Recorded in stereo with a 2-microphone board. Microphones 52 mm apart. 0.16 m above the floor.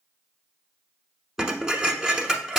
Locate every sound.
1.4 s dishes clattering: 15° right (ahead or behind), 1.0 m